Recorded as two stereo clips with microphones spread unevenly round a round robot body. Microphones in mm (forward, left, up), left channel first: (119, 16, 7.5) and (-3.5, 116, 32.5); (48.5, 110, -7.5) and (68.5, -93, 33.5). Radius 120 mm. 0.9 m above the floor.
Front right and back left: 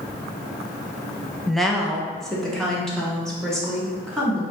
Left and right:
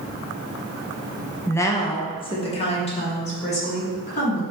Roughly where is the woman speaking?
Ahead left.